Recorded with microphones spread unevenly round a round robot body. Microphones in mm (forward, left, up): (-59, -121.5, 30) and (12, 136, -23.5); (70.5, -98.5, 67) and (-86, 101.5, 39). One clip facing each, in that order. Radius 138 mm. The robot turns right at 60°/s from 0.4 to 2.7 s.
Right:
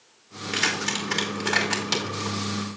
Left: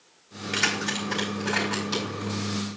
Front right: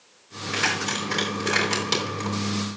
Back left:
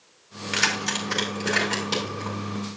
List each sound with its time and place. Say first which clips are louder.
0.5 s keys jangling: even, front right 1 dB; 165° left, 2.5 m; by 2.4 s 85° right, 2.5 m